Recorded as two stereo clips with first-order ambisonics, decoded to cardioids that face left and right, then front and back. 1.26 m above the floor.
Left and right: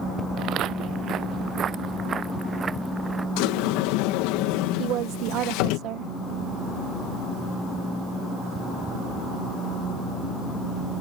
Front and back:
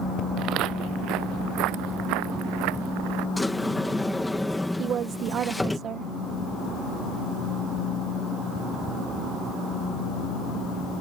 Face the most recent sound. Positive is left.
turn(degrees=-125)